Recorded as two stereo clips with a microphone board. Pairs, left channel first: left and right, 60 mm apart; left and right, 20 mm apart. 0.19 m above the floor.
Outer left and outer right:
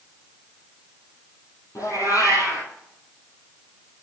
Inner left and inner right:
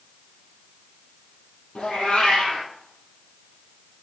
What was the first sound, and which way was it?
A cat meowing, 65° left (ahead or behind).